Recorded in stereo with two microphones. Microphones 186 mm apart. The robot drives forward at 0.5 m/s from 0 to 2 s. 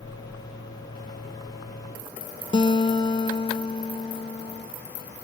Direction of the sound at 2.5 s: 30° left (ahead or behind).